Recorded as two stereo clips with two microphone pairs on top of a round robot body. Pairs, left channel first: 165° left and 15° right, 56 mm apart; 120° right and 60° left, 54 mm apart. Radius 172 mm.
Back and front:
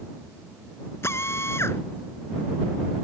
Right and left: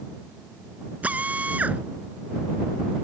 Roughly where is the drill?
Behind left.